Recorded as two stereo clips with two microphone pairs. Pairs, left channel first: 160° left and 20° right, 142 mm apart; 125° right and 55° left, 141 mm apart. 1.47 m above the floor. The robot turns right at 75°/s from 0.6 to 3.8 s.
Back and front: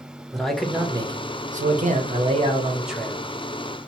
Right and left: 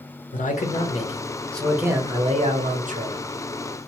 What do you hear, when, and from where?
0.3 s a man speaking: 110° right, 0.7 m; by 3.2 s 90° left, 0.7 m